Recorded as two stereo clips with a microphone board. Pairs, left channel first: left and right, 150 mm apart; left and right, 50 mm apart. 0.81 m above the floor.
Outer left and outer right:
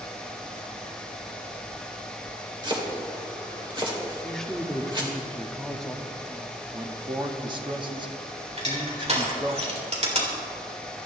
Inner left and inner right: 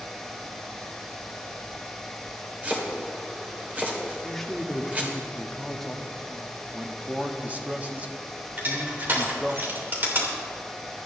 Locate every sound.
2.6 s chopping: 30° right (ahead or behind), 2.5 m
4.2 s a woman speaking: 5° left (ahead or behind), 1.4 m
6.7 s a man speaking: 30° right (ahead or behind), 1.3 m
8.6 s crushing: 45° right (ahead or behind), 3 m